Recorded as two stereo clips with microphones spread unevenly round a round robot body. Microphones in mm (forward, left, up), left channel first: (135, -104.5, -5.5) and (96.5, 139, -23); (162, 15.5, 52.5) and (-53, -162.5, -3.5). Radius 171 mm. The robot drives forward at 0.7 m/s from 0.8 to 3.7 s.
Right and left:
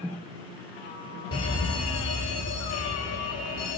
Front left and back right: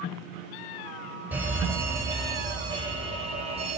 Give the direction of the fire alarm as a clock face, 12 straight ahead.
2 o'clock.